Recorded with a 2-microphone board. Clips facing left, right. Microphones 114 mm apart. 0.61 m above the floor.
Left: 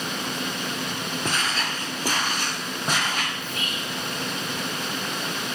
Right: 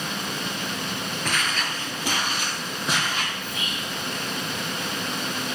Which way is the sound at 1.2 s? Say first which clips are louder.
Even; 30° left (ahead or behind).